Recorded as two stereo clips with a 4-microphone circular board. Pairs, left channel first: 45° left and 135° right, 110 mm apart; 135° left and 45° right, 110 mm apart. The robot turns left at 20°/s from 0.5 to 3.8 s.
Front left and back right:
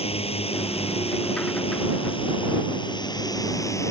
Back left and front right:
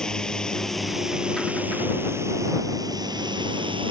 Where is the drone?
50° left; by 3.9 s 15° right.